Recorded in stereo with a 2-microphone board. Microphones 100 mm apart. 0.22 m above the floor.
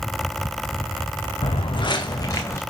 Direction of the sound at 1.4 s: 65° left (ahead or behind).